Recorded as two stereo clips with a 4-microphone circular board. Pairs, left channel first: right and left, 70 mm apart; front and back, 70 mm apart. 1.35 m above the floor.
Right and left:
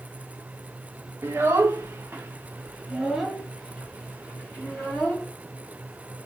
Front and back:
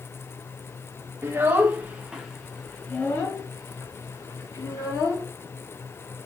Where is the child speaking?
135° left, 1.0 m; by 5.3 s 15° right, 1.5 m.